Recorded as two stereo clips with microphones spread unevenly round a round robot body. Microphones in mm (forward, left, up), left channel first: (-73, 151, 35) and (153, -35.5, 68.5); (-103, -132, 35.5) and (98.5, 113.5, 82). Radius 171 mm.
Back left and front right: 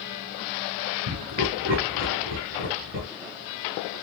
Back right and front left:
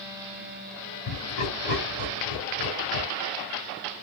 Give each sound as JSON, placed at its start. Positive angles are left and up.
{"t": 1.1, "sound": "laughter", "azimuth_deg": -100, "distance_m": 2.5}